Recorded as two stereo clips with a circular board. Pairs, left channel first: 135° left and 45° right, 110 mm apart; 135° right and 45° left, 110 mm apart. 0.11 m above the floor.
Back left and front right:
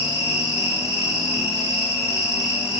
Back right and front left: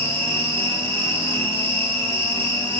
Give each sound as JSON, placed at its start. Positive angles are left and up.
{"t": 0.0, "sound": "an insect", "azimuth_deg": 10, "distance_m": 5.5}